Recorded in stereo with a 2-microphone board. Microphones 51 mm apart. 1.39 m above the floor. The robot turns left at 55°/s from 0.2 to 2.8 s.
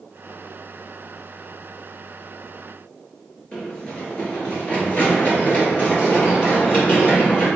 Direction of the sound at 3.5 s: 20° left (ahead or behind).